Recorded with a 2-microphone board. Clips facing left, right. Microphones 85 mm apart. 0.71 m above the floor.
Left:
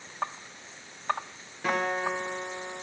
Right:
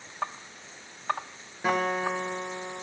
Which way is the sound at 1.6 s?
20° right (ahead or behind).